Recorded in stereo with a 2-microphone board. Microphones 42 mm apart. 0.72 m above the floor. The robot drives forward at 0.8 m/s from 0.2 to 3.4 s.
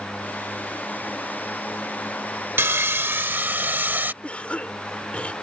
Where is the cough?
30° left (ahead or behind).